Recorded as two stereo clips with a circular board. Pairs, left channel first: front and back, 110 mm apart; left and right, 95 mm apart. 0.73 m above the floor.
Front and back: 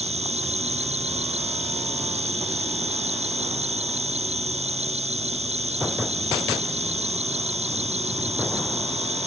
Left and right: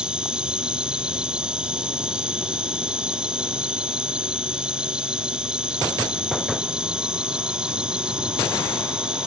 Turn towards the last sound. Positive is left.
turn(degrees=-170)